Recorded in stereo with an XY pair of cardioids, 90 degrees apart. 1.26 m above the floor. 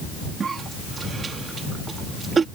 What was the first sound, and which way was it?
A cough, 45° right.